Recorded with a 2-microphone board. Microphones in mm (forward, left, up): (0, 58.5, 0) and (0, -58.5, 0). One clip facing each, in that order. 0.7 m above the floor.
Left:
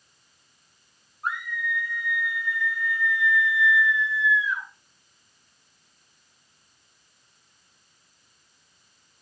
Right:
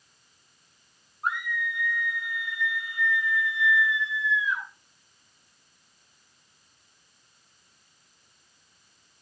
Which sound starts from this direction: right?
A scream, at 1.2 s.